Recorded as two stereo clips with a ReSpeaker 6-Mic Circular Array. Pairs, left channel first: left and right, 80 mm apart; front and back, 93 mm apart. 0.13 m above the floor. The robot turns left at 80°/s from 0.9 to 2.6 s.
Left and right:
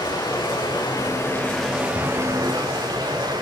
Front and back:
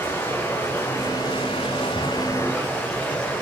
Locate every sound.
0.0 s running water: 60° left, 5 m; by 3.4 s 75° right, 5 m